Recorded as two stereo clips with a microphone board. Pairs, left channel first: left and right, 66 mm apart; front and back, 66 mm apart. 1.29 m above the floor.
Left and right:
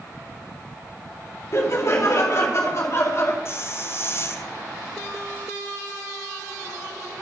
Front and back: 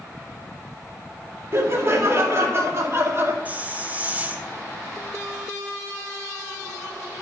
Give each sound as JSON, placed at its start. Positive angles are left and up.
{"t": 1.5, "sound": "laughter", "azimuth_deg": 135, "distance_m": 2.0}
{"t": 3.5, "sound": "a hiss", "azimuth_deg": 125, "distance_m": 0.6}